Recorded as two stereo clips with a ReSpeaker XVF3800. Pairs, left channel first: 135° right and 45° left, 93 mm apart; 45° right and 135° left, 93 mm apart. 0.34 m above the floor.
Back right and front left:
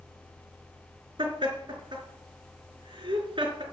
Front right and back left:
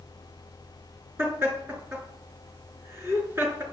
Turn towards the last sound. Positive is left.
turn(degrees=70)